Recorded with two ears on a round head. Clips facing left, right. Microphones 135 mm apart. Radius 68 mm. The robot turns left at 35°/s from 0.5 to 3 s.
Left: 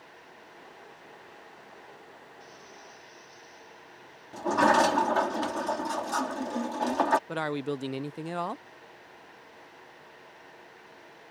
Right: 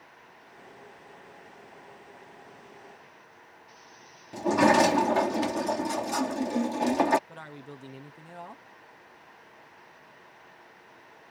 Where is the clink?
No clink in this recording.